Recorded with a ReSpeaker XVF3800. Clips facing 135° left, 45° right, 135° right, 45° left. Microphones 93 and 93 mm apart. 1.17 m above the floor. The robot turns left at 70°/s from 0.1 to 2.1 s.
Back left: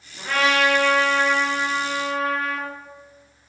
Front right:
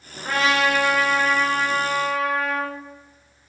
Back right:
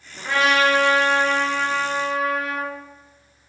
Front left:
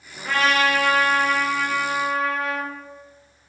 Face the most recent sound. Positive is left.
turn(degrees=165)